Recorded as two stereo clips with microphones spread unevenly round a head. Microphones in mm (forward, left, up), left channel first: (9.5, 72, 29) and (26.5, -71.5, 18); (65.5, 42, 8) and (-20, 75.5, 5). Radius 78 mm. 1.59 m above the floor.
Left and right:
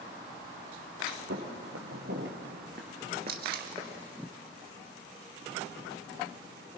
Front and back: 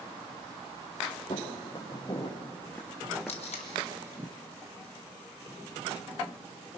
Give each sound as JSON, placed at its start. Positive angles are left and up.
{"t": 1.3, "sound": "footsteps", "azimuth_deg": -70, "distance_m": 3.0}
{"t": 3.3, "sound": "tape being pulled", "azimuth_deg": -55, "distance_m": 1.3}